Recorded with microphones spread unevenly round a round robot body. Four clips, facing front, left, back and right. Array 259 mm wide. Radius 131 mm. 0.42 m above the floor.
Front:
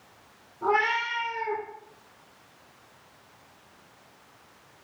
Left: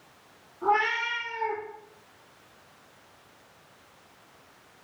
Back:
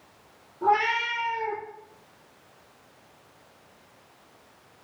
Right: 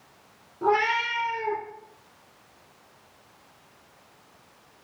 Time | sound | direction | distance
0.6 | a cat meowing | 115° right | 3 m